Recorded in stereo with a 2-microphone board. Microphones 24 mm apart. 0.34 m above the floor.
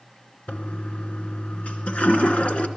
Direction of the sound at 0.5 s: 75° left (ahead or behind).